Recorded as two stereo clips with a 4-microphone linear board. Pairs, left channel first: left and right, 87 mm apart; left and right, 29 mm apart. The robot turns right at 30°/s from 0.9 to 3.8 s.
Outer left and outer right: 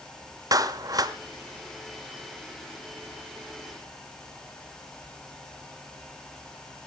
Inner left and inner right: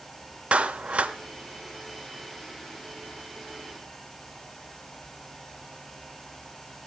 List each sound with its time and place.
0.5 s a clap: 45° right (ahead or behind), 1.1 m; by 1.2 s 50° right (ahead or behind), 1.1 m